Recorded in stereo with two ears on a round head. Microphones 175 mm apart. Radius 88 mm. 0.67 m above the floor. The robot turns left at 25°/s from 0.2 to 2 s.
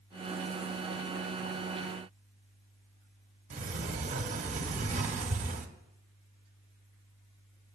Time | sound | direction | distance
3.5 | a sliding door | 35° right (ahead or behind) | 1.0 m